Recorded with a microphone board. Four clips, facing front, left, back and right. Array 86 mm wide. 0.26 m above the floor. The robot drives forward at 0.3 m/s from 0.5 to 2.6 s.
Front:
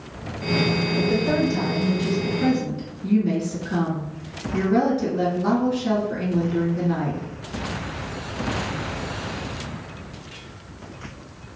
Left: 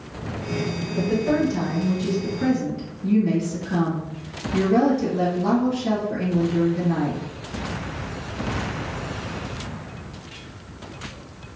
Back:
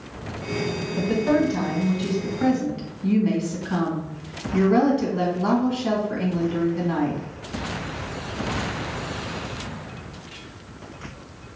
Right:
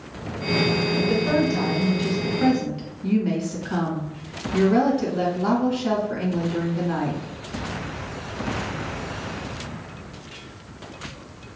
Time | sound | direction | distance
1.0 | a woman speaking | 150° right | 1.5 m